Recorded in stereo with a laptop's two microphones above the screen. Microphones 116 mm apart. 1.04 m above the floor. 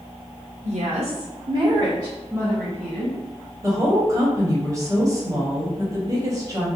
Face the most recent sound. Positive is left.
turn(degrees=-25)  # may be behind; listen again after turning